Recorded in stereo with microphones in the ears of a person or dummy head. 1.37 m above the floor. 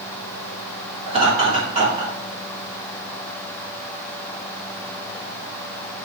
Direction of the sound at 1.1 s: 30° right (ahead or behind).